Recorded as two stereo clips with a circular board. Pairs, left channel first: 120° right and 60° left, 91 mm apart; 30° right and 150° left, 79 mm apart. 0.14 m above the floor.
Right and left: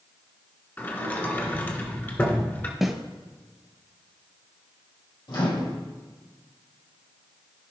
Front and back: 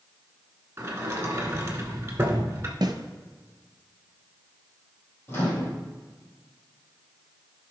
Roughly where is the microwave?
Right.